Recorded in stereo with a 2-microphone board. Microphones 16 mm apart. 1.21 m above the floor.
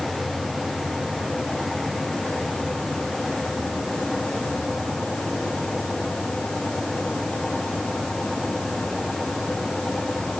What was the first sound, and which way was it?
Only background noise.